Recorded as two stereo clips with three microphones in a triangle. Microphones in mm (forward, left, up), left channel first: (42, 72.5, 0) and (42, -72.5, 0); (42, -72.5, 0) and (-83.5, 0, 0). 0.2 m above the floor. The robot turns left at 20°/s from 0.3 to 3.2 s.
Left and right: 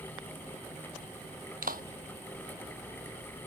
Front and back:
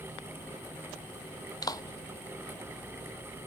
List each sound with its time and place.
1.6 s a clap: 95° right